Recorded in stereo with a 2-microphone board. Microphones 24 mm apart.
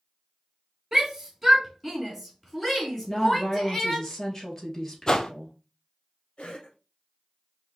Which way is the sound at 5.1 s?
25° left (ahead or behind).